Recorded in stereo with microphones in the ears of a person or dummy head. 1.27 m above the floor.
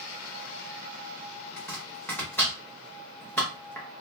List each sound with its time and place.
1.6 s chopping: 5° left (ahead or behind), 0.8 m